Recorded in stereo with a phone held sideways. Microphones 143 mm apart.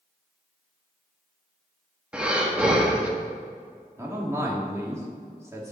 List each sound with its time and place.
2.1 s breathing: 5° right (ahead or behind), 1.2 m
4.0 s a man speaking: 20° right (ahead or behind), 2 m